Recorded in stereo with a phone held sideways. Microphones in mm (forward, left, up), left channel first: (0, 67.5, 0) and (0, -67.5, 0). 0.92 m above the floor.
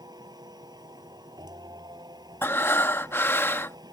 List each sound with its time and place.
0.0 s a machine running: 30° right (ahead or behind)
2.4 s breathing: 20° left (ahead or behind)